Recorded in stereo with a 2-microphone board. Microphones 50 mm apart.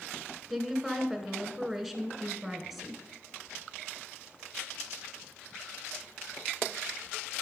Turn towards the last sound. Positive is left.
turn(degrees=-5)  # may be behind; listen again after turning